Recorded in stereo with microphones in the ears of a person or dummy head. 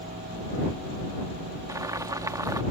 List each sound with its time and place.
1.7 s boiling: 20° right (ahead or behind)